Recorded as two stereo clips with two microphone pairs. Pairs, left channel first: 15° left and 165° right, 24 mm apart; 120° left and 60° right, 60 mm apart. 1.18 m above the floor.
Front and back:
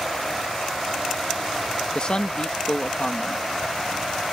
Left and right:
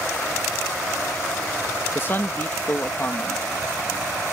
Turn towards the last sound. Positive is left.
turn(degrees=65)